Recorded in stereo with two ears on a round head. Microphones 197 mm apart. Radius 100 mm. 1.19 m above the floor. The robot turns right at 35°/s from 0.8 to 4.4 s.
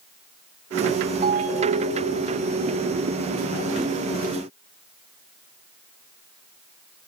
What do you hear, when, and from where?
1.2 s a ringtone: 145° right, 2 m; by 2.2 s 110° right, 2 m